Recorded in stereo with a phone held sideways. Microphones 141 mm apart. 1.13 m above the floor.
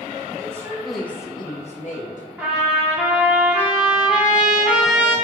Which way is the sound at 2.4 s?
10° right (ahead or behind).